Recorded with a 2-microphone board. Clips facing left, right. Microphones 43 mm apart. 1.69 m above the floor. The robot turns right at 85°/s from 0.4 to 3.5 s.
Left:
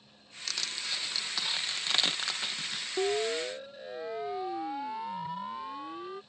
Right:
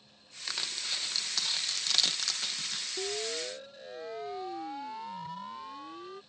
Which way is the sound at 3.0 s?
55° left (ahead or behind).